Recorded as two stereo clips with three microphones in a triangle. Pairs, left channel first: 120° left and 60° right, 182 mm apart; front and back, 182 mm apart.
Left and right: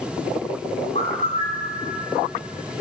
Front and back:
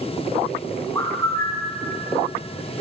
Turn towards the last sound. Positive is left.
turn(degrees=70)